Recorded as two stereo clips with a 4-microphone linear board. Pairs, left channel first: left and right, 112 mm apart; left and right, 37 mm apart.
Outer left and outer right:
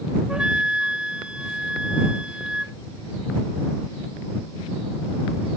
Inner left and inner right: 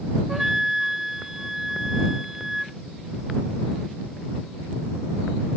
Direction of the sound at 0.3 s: 10° right (ahead or behind).